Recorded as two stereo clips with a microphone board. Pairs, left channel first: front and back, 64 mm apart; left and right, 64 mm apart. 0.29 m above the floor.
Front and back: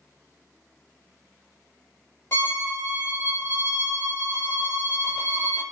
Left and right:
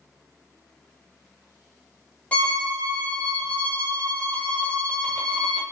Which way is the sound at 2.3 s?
30° left.